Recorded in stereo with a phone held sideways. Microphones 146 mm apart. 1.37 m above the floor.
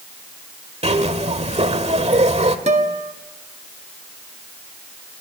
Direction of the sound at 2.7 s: 45° right (ahead or behind).